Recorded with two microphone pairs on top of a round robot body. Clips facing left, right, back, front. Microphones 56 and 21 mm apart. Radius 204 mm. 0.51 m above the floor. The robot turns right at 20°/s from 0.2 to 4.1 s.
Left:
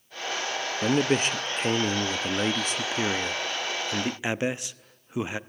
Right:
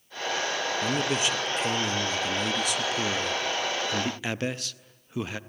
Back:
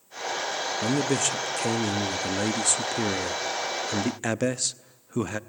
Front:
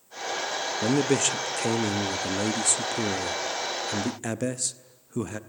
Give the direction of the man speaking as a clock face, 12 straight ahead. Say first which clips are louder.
Left 6 dB, front 2 dB; 9 o'clock.